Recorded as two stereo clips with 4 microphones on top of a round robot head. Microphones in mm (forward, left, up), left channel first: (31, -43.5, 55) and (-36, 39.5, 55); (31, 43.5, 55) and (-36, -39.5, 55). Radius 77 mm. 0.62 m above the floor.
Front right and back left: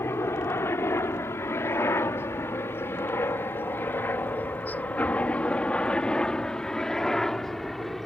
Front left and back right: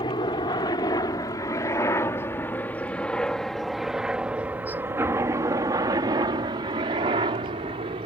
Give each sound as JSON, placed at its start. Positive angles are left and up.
{"t": 0.0, "sound": "a helicopter", "azimuth_deg": 15}